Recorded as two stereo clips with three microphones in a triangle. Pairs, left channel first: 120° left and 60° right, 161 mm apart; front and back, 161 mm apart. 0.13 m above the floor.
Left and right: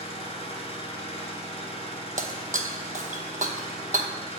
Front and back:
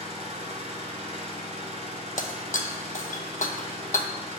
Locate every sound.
0.0 s an engine running: 155° left, 1.0 m
2.2 s breaking glass: 30° right, 0.6 m